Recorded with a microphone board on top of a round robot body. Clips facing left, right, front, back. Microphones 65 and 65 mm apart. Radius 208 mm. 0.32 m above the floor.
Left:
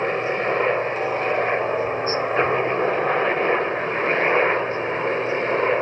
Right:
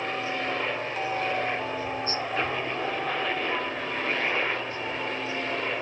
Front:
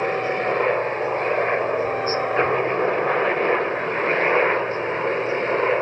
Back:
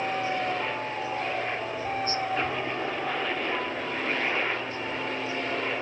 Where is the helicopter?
40° left; by 5.8 s 45° left.